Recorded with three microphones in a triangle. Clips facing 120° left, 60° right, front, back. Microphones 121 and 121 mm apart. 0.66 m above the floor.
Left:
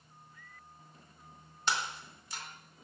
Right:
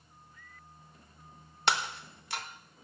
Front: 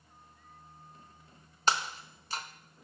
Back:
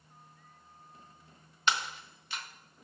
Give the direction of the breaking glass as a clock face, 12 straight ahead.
2 o'clock.